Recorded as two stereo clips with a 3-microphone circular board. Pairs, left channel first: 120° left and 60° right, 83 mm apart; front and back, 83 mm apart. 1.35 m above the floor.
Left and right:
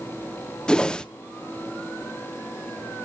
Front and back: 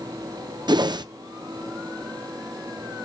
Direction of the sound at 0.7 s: 160° right.